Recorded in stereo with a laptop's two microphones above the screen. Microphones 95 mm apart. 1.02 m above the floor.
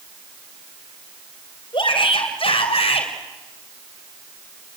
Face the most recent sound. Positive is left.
turn(degrees=90)